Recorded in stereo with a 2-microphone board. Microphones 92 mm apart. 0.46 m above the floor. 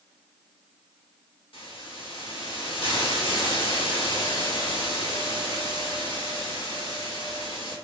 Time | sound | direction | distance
1.5 | a hiss | 65° left (ahead or behind) | 0.8 m